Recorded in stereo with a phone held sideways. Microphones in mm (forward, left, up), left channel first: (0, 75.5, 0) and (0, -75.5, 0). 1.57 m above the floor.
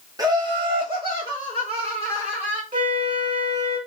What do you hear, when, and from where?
0.2 s laughter: 25° right (ahead or behind), 1.1 m; by 2.6 s 40° right (ahead or behind), 3.5 m
2.7 s a flute: 55° right (ahead or behind), 2.5 m